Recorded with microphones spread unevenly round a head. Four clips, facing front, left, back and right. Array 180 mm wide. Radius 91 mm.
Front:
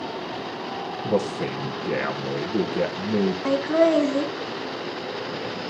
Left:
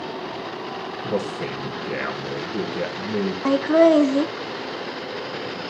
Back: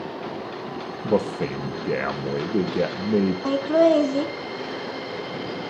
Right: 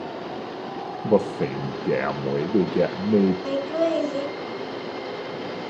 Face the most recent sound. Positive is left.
turn(degrees=95)